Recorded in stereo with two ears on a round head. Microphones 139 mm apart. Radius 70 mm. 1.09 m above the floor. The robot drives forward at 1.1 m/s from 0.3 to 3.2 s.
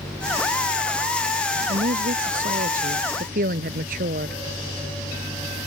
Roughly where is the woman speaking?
Right.